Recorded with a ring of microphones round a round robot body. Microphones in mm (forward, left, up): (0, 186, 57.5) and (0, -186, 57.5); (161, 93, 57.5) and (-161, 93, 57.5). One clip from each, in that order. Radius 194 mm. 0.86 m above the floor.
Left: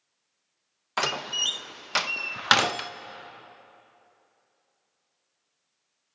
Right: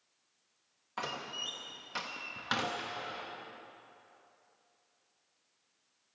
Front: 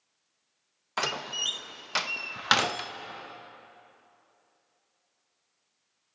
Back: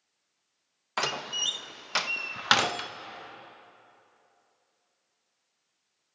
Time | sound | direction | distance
1.0 | a door slam | 100° left | 0.7 m